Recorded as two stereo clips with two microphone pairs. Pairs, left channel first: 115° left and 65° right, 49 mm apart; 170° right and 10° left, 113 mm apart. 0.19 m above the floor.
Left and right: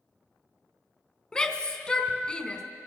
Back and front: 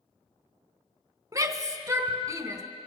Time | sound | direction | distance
1.3 | a shout | 55° left | 1.3 m